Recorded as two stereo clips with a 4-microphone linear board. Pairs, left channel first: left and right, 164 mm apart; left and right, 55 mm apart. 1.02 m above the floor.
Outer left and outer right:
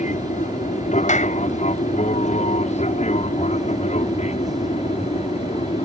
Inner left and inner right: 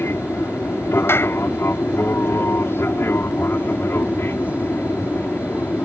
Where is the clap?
50° left (ahead or behind).